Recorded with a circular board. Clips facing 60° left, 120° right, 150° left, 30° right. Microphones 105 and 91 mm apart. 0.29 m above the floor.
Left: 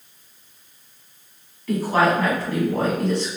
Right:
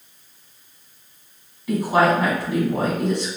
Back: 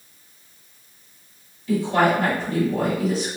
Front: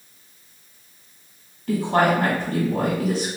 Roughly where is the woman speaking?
Ahead right.